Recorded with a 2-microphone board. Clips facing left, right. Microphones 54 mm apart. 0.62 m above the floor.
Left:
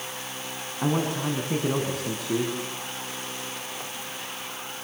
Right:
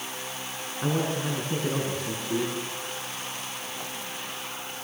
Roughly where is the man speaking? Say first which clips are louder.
Left 2 dB; left.